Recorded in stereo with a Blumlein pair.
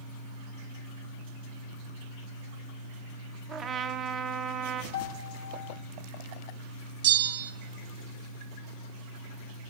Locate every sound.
3.5 s a trumpet: 20° right, 0.6 m
4.9 s a piano: 60° left, 0.9 m
7.0 s a bell: 55° right, 0.6 m